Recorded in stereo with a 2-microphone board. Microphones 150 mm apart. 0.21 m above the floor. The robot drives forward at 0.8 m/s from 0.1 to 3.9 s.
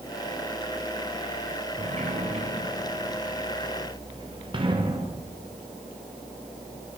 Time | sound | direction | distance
1.8 | a sliding door | 50° right (ahead or behind) | 3 m